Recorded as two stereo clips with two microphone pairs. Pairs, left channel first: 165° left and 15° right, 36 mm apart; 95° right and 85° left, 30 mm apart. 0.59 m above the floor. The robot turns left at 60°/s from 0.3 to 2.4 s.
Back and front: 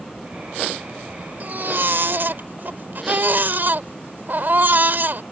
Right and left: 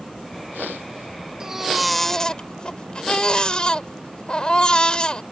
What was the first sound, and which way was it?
A baby crying, 20° left.